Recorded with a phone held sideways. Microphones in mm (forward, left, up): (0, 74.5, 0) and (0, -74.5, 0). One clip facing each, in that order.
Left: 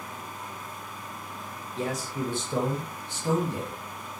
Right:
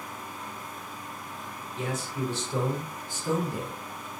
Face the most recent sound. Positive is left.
turn(degrees=70)  # may be behind; listen again after turning